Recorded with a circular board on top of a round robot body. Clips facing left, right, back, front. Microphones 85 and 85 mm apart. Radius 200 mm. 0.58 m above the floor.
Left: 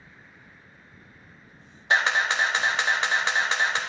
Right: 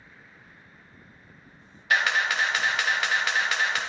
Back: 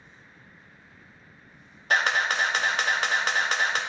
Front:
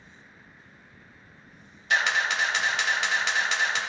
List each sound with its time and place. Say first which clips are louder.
1.9 s a camera shutter: left 1 dB, back 1 dB; 150° left, 1.1 m